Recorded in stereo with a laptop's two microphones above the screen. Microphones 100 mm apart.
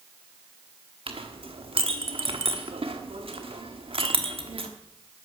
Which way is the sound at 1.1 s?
65° right (ahead or behind).